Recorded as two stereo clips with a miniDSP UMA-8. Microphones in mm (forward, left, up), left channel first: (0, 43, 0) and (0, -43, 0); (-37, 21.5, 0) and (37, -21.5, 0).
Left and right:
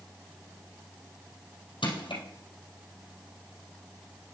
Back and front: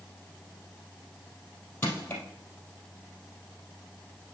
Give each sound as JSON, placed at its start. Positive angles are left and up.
{"t": 1.8, "sound": "crushing", "azimuth_deg": 85, "distance_m": 3.0}